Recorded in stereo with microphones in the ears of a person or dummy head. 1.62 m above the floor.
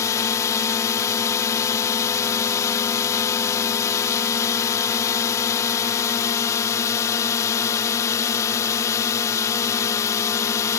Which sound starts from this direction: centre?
A drone, at 0.0 s.